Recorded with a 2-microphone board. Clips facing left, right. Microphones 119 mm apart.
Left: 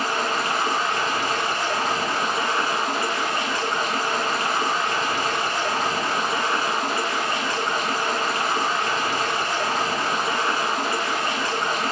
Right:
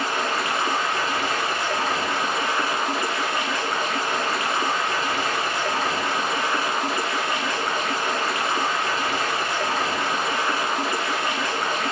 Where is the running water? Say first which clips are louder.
Left 1 dB; 35° left (ahead or behind), 3 m.